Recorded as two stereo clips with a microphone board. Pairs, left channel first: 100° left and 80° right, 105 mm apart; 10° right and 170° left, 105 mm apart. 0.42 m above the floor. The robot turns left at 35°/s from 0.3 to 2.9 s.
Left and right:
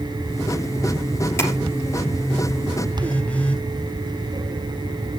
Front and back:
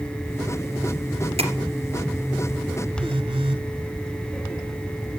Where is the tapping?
165° left, 2.5 m; by 1.5 s 160° left, 2.5 m.